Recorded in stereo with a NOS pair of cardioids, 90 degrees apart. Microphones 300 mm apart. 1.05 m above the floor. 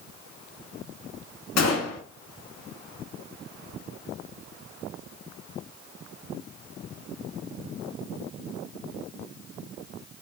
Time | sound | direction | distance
1.6 | a gunshot | 55° left | 1.2 m